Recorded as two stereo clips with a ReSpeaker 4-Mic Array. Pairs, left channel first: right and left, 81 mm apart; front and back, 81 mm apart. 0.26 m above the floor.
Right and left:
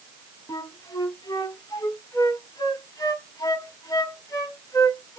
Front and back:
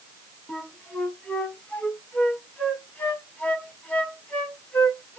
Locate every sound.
0.5 s a flute: 70° right, 1.6 m